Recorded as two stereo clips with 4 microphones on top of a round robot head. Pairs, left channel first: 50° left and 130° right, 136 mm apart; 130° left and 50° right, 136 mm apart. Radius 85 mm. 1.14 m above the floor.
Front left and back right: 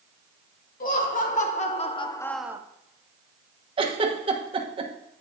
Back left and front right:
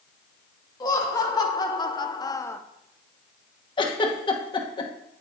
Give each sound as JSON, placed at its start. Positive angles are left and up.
{"t": 0.8, "sound": "laughter", "azimuth_deg": 65, "distance_m": 2.0}
{"t": 3.8, "sound": "a giggle", "azimuth_deg": 180, "distance_m": 1.3}